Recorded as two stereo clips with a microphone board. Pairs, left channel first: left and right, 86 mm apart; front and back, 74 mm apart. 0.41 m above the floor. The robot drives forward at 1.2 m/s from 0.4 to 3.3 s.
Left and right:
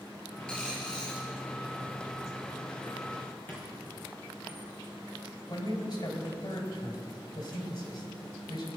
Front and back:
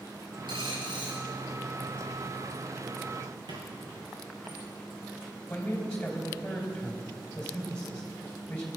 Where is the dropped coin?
170° left, 2.5 m; by 1.2 s 175° left, 3.5 m.